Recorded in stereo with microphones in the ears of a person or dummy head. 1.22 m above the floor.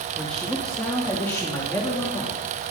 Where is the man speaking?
5° left (ahead or behind), 2.5 m; by 2.7 s 15° left (ahead or behind), 3.5 m.